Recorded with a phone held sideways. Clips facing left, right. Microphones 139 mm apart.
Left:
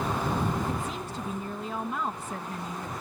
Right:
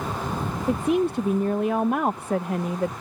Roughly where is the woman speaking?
Right.